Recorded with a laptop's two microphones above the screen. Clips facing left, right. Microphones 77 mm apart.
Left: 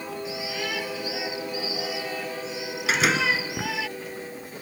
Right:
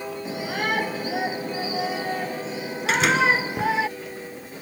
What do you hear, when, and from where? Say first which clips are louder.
0.2 s a shout: right 7 dB; 45° right (ahead or behind); by 3.9 s 35° right (ahead or behind)
2.9 s a door slam: right 3 dB; centre (ahead or behind)